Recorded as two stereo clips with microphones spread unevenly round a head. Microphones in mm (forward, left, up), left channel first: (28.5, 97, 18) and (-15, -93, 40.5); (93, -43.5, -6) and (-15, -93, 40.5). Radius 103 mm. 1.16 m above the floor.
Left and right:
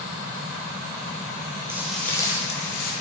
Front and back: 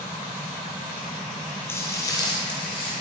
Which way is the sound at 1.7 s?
75° right.